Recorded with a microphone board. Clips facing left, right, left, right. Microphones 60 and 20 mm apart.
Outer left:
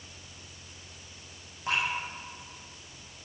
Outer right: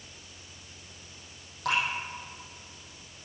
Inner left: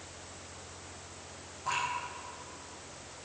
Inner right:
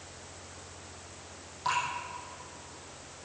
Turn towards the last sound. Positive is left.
turn(degrees=-75)  # may be behind; listen again after turning